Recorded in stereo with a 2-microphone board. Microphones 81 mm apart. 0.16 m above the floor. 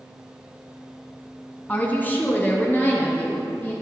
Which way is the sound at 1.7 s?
20° left (ahead or behind).